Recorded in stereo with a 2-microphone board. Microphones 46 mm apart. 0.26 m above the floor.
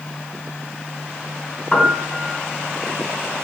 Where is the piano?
15° left (ahead or behind), 3.5 m.